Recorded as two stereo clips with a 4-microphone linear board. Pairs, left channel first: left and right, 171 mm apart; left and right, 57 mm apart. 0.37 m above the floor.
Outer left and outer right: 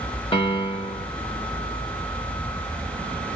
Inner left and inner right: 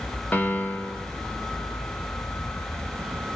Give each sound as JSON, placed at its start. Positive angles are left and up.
{"t": 0.3, "sound": "a piano", "side_deg": 30, "distance_m": 0.6}